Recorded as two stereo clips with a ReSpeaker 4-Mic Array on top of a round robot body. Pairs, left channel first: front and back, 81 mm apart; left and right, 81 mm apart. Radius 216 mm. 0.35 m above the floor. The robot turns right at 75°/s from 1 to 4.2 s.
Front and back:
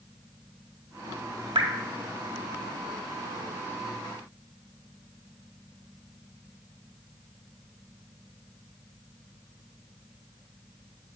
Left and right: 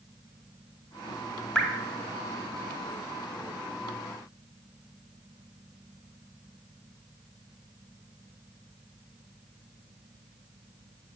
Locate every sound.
1.6 s dripping: 170° left, 2.5 m; by 1.7 s straight behind, 2.5 m